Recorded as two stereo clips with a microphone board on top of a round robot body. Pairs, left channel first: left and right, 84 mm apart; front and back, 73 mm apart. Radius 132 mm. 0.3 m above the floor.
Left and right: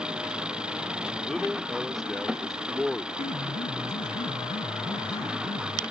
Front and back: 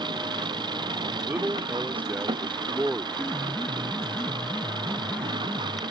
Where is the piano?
70° left.